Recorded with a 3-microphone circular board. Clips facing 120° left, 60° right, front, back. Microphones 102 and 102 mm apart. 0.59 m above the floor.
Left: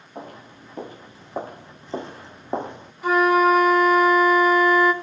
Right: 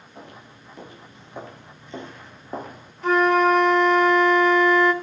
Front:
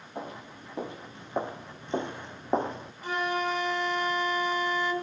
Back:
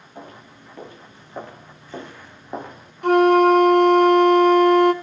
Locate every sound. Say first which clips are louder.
0.1 s footsteps: left 6 dB, front 2 dB; 70° left, 3.5 m; by 2.9 s 55° left, 2 m
3.0 s a flute: left 1 dB, back 16 dB; 160° right, 2.5 m